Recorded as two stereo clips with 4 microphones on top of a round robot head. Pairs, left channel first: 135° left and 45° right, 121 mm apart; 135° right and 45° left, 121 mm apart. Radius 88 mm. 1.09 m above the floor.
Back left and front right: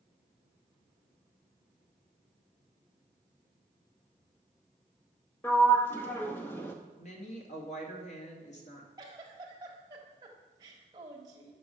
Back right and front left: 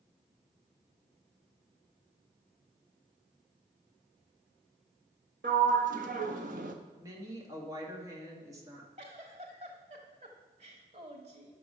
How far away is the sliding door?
About 0.7 m.